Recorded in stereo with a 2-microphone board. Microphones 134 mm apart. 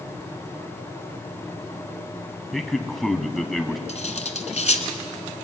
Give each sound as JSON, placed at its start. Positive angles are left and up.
{"t": 2.5, "sound": "a man speaking", "side_deg": 0, "distance_m": 1.8}
{"t": 3.9, "sound": "cutlery clinking", "side_deg": 55, "distance_m": 1.7}